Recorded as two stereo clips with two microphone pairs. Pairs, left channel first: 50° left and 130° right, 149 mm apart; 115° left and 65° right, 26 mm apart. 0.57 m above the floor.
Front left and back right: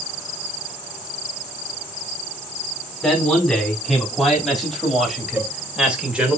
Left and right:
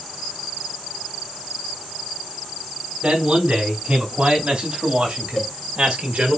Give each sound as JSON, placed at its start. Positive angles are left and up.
{"t": 3.0, "sound": "a man speaking", "azimuth_deg": -35, "distance_m": 5.0}
{"t": 5.4, "sound": "a cowbell", "azimuth_deg": 160, "distance_m": 1.2}